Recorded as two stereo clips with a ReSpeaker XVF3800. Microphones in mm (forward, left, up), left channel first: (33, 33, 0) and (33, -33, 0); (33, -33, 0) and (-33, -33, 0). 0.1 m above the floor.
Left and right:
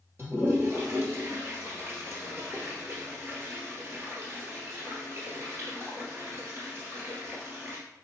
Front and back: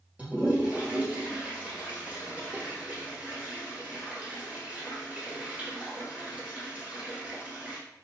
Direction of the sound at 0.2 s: 120° right.